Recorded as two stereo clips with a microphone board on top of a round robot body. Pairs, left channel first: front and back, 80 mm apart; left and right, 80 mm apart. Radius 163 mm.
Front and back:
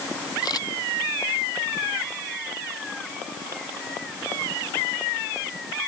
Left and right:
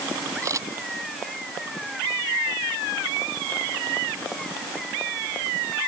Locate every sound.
0.4 s a camera shutter: 40° right